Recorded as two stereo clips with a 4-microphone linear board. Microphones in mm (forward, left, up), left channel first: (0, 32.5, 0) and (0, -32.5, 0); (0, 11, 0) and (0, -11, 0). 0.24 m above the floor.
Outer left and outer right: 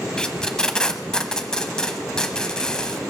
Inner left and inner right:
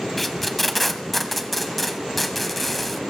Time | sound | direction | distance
0.2 | tape being pulled | 10° left (ahead or behind) | 0.8 m